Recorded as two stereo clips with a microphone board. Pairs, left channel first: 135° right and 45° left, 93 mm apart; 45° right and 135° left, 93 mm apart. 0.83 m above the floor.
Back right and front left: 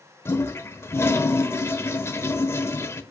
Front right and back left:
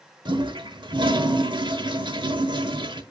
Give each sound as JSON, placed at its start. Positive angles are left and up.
{"t": 0.2, "sound": "a toilet flushing", "azimuth_deg": 165, "distance_m": 1.1}